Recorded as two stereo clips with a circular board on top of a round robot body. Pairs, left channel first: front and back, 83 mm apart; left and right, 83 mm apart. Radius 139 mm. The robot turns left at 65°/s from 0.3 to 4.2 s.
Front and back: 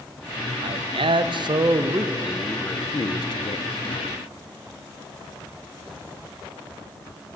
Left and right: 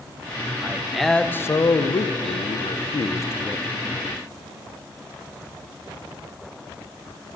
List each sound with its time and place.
0.6 s a man speaking: 155° right, 0.7 m; by 4.2 s 25° right, 0.7 m